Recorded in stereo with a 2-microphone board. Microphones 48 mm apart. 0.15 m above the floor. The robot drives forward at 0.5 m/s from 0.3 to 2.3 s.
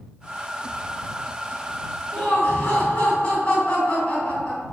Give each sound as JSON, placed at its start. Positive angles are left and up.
{"t": 2.1, "sound": "laughter", "side_deg": 20, "distance_m": 2.0}